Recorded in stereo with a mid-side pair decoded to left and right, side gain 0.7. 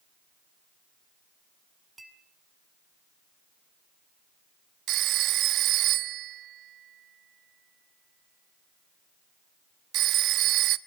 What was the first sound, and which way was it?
A clink, 15° right.